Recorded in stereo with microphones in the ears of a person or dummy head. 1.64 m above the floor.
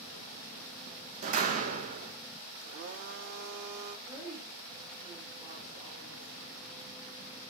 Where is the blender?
55° right (ahead or behind), 1.1 m.